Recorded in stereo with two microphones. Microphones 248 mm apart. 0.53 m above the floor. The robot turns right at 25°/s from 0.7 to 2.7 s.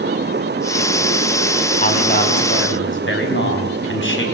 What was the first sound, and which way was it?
A man speaking, 30° left (ahead or behind).